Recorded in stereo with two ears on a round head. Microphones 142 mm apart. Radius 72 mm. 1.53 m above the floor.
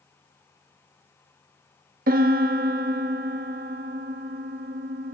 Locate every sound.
2.1 s a piano: 55° right (ahead or behind), 1.4 m